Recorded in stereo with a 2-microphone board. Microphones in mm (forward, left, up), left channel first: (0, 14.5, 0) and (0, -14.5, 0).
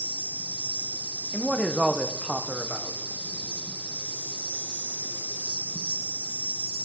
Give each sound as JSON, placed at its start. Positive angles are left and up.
{"t": 0.0, "sound": "an insect", "side_deg": 80, "distance_m": 2.5}
{"t": 1.3, "sound": "a man speaking", "side_deg": 0, "distance_m": 1.0}